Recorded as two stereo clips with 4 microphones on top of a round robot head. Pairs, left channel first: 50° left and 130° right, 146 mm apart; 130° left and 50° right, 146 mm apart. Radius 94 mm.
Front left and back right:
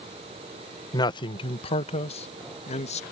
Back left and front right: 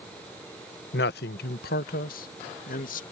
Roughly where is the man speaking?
Behind left.